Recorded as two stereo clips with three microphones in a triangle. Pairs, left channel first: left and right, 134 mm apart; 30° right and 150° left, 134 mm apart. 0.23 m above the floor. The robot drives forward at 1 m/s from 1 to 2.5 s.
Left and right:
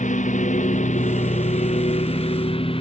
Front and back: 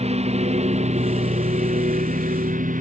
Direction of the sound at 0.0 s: 110° left.